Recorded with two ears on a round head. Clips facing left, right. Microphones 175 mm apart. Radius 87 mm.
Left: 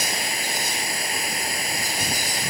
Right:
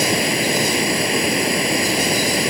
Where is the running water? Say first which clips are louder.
Right 12 dB; 55° right (ahead or behind).